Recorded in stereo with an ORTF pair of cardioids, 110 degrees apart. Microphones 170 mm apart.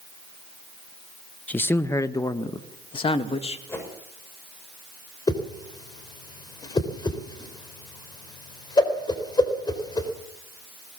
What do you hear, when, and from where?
1.5 s a man speaking: 10° left, 1.4 m; by 3.6 s 35° left, 2 m
3.7 s a whoosh: 15° left, 7 m
5.3 s a whoosh: 25° left, 4 m